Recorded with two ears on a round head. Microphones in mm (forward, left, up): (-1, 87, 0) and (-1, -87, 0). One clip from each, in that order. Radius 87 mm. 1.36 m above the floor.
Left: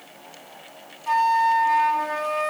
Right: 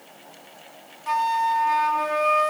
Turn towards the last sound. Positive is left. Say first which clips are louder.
# left 3 dB
turn(degrees=-15)  # may be behind; listen again after turning